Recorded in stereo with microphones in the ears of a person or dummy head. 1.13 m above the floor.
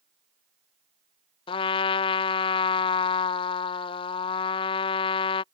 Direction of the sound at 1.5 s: 30° left (ahead or behind).